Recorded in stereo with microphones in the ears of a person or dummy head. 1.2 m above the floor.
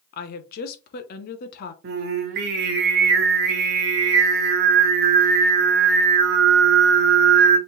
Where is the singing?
50° right (ahead or behind), 1.1 m.